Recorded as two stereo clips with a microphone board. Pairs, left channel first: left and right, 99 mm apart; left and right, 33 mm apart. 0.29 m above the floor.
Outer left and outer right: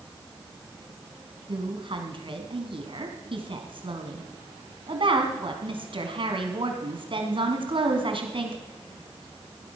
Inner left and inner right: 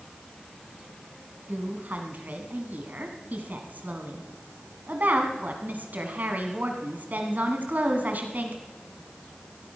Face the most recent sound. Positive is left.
turn(degrees=-60)  # may be behind; listen again after turning